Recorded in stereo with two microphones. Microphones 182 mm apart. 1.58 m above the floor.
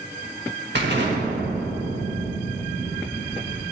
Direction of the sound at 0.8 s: 75° right (ahead or behind).